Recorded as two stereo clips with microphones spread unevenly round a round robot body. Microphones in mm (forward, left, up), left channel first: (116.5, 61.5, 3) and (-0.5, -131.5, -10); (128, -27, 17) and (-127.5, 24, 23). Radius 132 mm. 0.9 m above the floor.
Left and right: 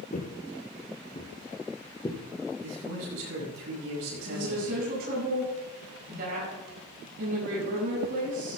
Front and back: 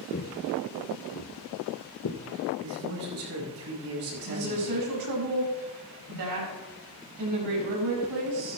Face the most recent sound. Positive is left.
turn(degrees=180)